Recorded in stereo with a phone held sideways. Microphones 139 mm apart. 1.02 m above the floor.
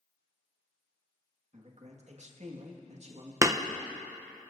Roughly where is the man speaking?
Right.